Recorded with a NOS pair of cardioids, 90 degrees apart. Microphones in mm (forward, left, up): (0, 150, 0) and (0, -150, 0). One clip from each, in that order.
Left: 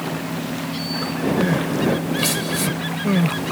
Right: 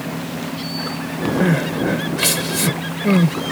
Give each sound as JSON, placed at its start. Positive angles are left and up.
{"t": 1.4, "sound": "crying", "azimuth_deg": -35}